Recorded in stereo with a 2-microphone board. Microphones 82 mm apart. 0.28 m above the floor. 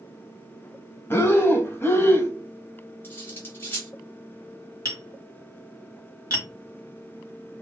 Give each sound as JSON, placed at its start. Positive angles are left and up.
{"t": 1.1, "sound": "breathing", "side_deg": 30, "distance_m": 0.6}
{"t": 3.0, "sound": "cutlery clinking", "side_deg": 25, "distance_m": 0.9}
{"t": 4.8, "sound": "tapping", "side_deg": -40, "distance_m": 1.2}